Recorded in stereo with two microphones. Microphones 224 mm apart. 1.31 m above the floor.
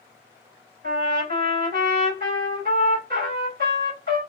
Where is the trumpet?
50° right (ahead or behind), 2.0 m.